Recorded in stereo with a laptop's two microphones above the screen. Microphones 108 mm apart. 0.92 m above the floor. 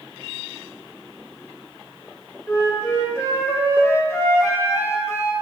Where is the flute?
25° left (ahead or behind), 0.6 m.